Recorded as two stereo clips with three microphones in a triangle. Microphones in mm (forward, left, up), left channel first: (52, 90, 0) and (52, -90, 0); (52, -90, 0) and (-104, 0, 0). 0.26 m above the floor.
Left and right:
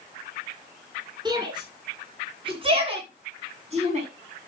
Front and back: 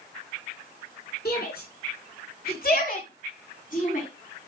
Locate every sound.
1.2 s a shout: 30° right, 3.5 m; by 4.1 s 50° right, 2.5 m